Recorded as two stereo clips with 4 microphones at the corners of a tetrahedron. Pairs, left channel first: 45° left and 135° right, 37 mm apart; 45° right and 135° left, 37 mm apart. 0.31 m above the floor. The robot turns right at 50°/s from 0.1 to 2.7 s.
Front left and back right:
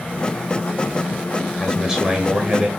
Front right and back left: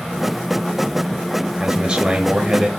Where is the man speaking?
150° left, 1.6 m; by 2.7 s 155° right, 1.6 m.